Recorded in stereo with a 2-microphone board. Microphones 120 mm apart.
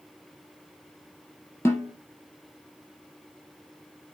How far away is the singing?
I don't hear singing.